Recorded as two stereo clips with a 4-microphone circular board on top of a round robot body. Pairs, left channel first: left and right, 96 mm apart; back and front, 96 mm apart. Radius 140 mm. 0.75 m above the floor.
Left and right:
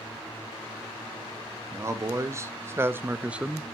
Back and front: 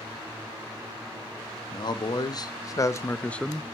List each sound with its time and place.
1.7 s a man speaking: 145° right, 1.5 m; by 3.7 s 15° left, 0.7 m